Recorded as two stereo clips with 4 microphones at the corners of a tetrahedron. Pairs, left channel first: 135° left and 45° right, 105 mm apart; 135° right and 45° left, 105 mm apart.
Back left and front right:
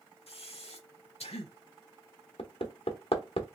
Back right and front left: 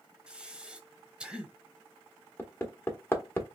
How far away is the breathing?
About 0.9 m.